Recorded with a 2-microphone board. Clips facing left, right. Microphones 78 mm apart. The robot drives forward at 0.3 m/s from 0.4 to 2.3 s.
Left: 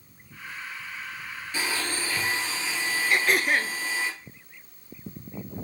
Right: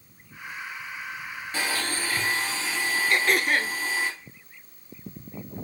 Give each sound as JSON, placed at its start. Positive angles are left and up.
{"t": 1.5, "sound": "a blender", "side_deg": -40, "distance_m": 1.9}
{"t": 3.1, "sound": "throat clearing", "side_deg": 0, "distance_m": 0.7}